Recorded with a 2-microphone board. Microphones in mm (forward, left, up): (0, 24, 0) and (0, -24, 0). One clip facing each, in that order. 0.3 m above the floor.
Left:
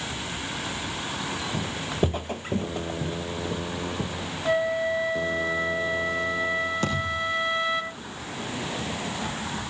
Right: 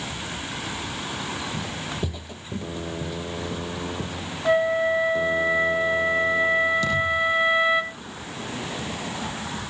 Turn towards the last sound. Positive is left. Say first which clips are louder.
# right 5 dB
turn(degrees=45)  # may be behind; listen again after turning